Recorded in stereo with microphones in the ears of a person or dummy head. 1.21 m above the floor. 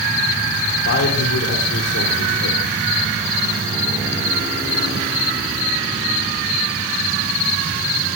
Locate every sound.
0.8 s a man speaking: 65° left (ahead or behind), 4 m